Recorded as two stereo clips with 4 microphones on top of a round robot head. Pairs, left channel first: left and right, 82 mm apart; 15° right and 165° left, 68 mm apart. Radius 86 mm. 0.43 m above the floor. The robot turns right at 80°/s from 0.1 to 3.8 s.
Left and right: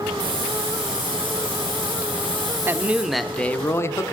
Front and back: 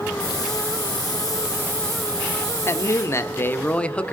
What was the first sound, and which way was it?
A hiss, 70° right.